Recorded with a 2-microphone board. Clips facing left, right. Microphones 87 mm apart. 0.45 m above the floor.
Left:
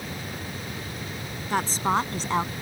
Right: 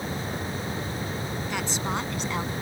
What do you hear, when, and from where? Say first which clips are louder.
1.5 s a woman speaking: left 8 dB; 40° left (ahead or behind); by 2.5 s 35° left (ahead or behind)